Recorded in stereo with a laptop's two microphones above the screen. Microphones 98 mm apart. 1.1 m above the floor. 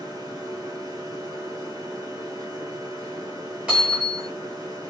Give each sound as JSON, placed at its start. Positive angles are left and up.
{"t": 0.0, "sound": "a machine running", "side_deg": -45, "distance_m": 1.1}
{"t": 3.7, "sound": "hammering", "side_deg": -10, "distance_m": 2.5}